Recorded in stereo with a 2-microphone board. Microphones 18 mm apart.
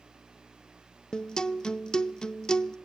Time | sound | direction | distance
1.1 | a guitar | 50° left (ahead or behind) | 0.5 m